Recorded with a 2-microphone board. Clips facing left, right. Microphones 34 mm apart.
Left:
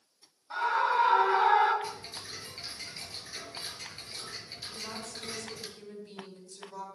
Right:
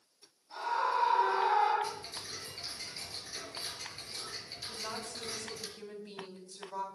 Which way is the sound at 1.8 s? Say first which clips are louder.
Even; 15° left (ahead or behind).